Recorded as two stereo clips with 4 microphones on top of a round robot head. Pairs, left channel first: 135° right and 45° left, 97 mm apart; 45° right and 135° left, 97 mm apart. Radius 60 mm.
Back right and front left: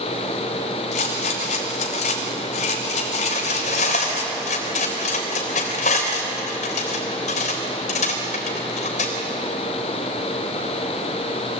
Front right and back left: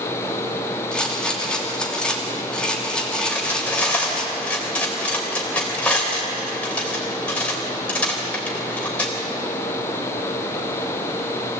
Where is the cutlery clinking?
125° right, 3.5 m.